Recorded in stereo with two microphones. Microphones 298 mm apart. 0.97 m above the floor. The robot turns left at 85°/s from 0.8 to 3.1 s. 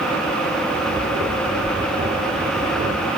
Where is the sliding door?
25° left (ahead or behind), 4 m; by 1.8 s 35° left (ahead or behind), 4 m.